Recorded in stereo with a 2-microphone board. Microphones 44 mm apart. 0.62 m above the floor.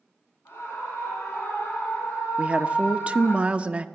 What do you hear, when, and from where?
0.5 s a scream: 75° left (ahead or behind), 7.5 m
2.4 s a woman speaking: 30° right (ahead or behind), 1.0 m